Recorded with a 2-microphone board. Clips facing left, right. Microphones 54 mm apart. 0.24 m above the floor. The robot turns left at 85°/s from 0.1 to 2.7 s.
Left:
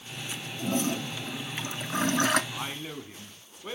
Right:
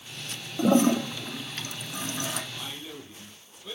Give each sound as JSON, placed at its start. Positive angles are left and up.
{"t": 0.6, "sound": "a toilet flushing", "azimuth_deg": -115, "distance_m": 0.6}
{"t": 2.5, "sound": "a man speaking", "side_deg": 50, "distance_m": 2.0}